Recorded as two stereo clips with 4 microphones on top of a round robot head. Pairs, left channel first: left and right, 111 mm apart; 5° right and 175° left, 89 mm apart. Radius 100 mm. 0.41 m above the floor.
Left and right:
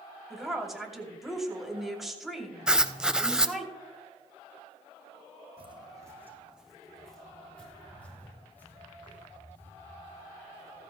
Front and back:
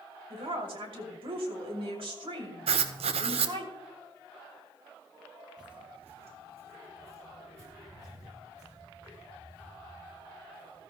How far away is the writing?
About 0.7 m.